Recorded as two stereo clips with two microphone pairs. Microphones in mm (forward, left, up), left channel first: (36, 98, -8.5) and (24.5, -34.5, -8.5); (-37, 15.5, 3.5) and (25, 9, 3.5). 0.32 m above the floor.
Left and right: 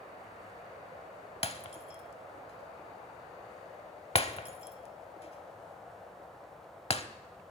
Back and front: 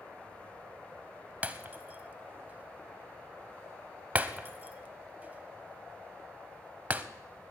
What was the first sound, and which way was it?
Breaking glass, 55° left.